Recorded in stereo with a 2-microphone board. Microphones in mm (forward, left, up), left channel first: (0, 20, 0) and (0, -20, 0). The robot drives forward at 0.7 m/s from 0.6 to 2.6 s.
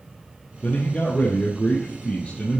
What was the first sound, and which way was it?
A man speaking, 50° left (ahead or behind).